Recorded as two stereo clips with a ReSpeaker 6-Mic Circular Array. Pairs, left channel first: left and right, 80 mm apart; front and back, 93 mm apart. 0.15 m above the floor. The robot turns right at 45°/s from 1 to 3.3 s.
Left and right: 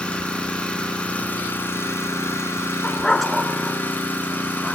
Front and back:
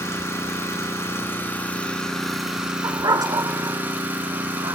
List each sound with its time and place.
0.0 s an engine running: 30° left, 1.6 m; by 4.8 s 130° left, 1.6 m
2.8 s a dog barking: 160° left, 0.6 m; by 4.8 s straight behind, 0.6 m